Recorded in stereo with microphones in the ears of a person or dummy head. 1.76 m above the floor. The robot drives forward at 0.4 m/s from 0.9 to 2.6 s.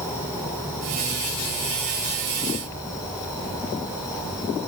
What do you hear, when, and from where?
0.0 s an insect: 10° right (ahead or behind), 4 m; by 4.7 s 5° right (ahead or behind), 4.5 m